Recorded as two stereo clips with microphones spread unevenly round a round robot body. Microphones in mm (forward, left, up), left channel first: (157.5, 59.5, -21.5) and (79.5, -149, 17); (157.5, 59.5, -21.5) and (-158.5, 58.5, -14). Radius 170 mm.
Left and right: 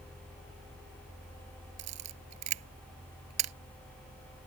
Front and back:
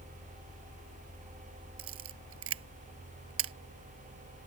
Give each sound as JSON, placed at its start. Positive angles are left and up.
{"t": 1.8, "sound": "a camera shutter", "azimuth_deg": -125}